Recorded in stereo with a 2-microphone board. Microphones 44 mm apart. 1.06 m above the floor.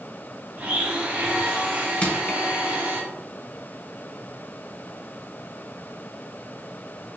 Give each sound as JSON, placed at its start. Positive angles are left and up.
{"t": 0.6, "sound": "a blender", "side_deg": -40, "distance_m": 1.2}
{"t": 2.0, "sound": "crushing", "side_deg": 35, "distance_m": 0.8}